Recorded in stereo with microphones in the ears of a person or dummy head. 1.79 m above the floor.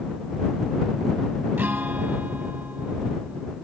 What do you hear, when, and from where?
1.6 s a guitar: 15° right (ahead or behind)